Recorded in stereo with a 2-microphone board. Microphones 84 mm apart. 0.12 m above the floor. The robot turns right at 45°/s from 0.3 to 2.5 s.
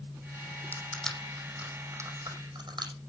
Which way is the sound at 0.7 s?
20° left (ahead or behind).